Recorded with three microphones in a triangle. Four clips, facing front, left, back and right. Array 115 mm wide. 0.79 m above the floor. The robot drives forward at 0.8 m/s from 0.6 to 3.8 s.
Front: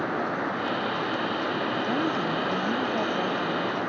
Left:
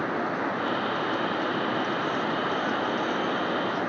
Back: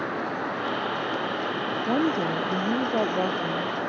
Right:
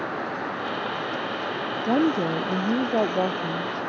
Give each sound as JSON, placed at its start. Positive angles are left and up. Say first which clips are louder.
{"t": 1.9, "sound": "a woman speaking", "louder": "right 6 dB, back 6 dB", "azimuth_deg": -105}